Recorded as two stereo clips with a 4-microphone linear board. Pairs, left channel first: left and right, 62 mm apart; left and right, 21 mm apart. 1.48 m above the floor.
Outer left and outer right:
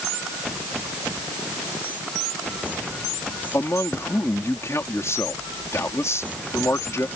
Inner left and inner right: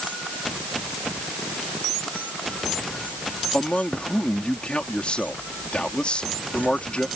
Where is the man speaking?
50° left (ahead or behind).